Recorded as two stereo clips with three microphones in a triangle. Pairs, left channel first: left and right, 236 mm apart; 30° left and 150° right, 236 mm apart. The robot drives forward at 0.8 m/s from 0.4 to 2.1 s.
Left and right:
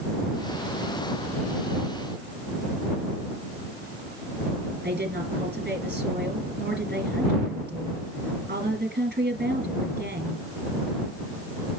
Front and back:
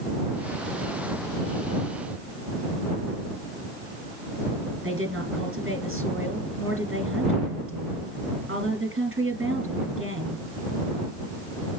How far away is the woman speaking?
About 3 m.